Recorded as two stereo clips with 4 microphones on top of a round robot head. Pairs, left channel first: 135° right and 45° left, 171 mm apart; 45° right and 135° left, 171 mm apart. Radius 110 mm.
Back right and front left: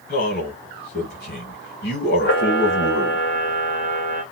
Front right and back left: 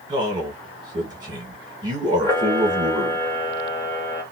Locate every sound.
0.1 s a man speaking: 160° right, 2.5 m
2.2 s a camera shutter: 120° right, 1.5 m